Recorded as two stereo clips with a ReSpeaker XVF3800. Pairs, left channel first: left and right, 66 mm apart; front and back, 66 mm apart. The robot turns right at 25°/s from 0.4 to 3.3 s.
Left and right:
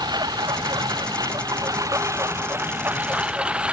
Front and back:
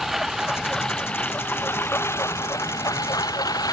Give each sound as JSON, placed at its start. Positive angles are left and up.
{"t": 0.0, "sound": "a lawn mower", "azimuth_deg": -95}